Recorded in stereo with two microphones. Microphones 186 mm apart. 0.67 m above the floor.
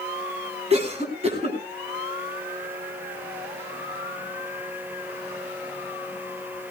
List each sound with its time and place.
0.7 s a cough: 35° right (ahead or behind), 6.5 m